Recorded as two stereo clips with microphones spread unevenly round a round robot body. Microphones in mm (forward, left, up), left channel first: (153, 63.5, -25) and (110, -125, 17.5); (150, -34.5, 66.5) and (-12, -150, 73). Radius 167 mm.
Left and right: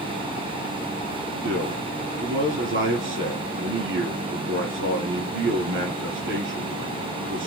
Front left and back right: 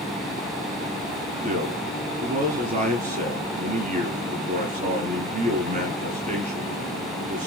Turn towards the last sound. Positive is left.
turn(degrees=-95)